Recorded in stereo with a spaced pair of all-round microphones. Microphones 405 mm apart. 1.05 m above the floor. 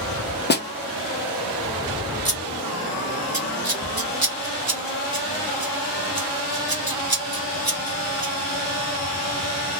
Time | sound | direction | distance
0.5 | a snare drum | 25° left (ahead or behind) | 0.6 m
2.2 | scissors | 60° right (ahead or behind) | 1.2 m